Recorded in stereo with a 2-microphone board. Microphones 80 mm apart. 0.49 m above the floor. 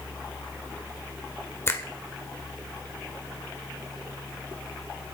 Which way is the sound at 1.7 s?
30° left (ahead or behind).